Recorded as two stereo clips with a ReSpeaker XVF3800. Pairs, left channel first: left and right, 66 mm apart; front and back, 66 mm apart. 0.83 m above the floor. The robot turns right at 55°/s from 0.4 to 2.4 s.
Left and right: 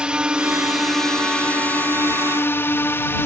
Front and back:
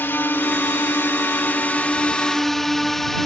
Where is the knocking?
No knocking in this recording.